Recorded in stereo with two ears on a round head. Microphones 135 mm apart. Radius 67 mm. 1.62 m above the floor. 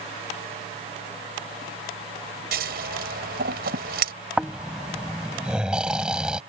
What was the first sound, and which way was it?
Scissors, 70° right (ahead or behind).